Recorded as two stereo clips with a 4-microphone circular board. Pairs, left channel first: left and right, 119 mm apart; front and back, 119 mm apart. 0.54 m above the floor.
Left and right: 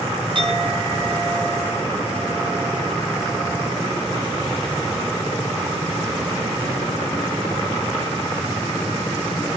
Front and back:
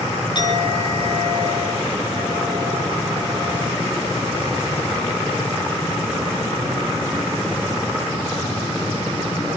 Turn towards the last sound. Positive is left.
turn(degrees=-50)